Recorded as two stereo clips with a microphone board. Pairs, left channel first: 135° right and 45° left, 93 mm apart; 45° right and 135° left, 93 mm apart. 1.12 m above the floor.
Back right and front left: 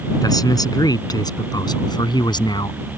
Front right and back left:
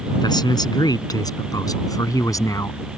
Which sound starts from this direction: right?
A man speaking, at 0.2 s.